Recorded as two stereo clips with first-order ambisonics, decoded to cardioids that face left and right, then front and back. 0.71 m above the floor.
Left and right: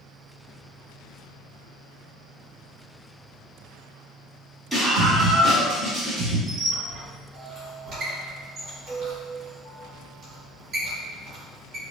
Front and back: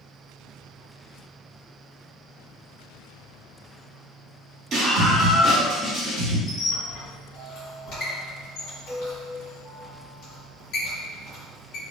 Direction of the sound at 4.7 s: 170° right.